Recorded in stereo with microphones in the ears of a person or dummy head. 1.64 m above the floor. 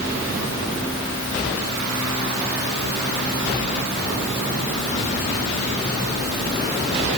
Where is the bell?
I don't hear a bell.